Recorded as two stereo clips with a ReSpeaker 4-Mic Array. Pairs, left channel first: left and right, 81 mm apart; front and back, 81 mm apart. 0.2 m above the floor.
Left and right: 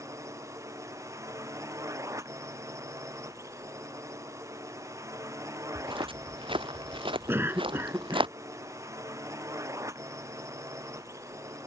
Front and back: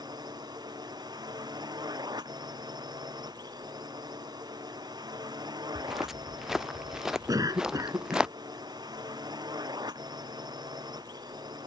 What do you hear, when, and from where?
0.0 s a drone: 145° right
5.8 s footsteps: 95° right; by 8.3 s 100° right
7.3 s a cough: 150° right